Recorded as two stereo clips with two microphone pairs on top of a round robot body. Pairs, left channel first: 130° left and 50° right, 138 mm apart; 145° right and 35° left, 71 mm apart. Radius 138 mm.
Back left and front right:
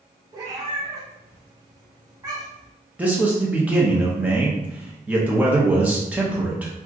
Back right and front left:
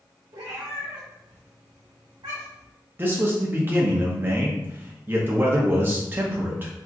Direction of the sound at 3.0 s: 20° left.